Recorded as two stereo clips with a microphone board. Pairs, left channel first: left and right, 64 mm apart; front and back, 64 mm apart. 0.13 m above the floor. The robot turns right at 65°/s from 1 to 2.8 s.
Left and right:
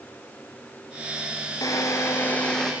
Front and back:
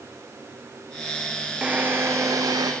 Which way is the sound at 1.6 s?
105° left.